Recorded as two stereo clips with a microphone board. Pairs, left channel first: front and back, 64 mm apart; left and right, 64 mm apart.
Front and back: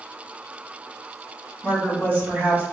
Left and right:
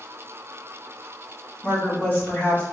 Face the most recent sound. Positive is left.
turn(degrees=135)